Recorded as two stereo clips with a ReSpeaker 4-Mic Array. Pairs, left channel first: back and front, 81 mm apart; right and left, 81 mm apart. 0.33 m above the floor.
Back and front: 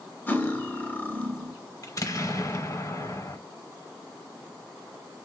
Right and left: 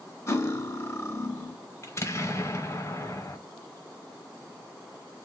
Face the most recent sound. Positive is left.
turn(degrees=-140)